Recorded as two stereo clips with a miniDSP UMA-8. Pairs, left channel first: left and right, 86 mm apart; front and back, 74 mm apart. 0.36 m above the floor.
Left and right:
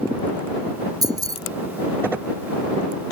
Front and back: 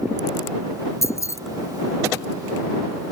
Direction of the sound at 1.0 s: 50° right.